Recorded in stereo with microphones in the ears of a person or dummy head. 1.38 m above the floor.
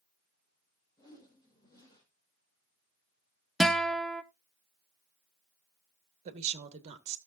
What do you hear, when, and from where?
1.0 s a whoosh: 25° left (ahead or behind), 4.5 m
3.6 s a guitar: 5° right (ahead or behind), 0.6 m
6.2 s a woman speaking: 40° right (ahead or behind), 1.8 m